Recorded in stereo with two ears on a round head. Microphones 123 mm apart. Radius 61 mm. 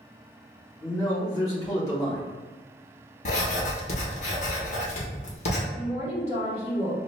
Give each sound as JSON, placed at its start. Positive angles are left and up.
{"t": 0.8, "sound": "a man speaking", "side_deg": 25, "distance_m": 1.5}
{"t": 3.2, "sound": "writing", "side_deg": 55, "distance_m": 0.9}
{"t": 5.7, "sound": "a woman speaking", "side_deg": 45, "distance_m": 1.6}